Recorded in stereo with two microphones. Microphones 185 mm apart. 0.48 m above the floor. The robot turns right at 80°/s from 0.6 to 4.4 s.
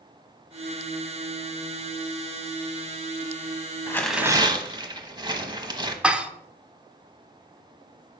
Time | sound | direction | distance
3.9 | tearing paper | 160° left | 0.9 m
6.0 | dishes clattering | 5° right (ahead or behind) | 0.7 m